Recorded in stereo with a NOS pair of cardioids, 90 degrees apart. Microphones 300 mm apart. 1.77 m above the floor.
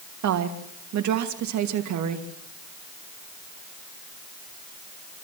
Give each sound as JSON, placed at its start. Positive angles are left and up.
{"t": 0.2, "sound": "a woman speaking", "azimuth_deg": -70, "distance_m": 2.5}